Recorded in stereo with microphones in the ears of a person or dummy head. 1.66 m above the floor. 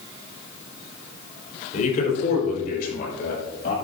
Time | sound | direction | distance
1.7 | a man speaking | 45° left (ahead or behind) | 4 m